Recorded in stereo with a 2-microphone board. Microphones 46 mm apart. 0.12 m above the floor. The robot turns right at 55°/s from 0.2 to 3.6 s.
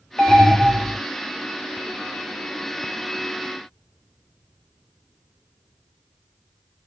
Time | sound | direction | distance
0.2 | an alarm | 135° left | 3 m